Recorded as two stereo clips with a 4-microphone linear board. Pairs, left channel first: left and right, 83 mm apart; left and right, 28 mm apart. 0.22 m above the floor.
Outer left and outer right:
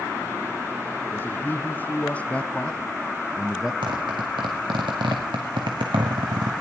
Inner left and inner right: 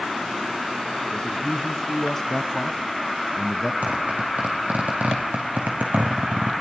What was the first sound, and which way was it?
A man speaking, 25° left (ahead or behind).